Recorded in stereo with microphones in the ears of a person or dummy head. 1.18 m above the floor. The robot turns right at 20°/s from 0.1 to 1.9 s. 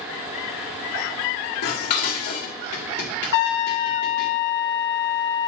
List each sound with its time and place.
1.6 s dishes clattering: 55° left (ahead or behind), 1.8 m; by 4.3 s 50° left (ahead or behind), 1.8 m
3.3 s a trumpet: 65° left (ahead or behind), 1.2 m